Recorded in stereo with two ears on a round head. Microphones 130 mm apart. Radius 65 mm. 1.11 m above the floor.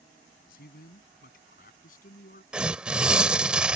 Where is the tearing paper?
5° right (ahead or behind).